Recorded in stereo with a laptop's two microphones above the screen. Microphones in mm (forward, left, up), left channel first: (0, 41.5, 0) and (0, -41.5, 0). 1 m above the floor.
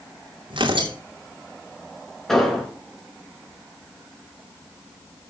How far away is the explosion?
About 4 m.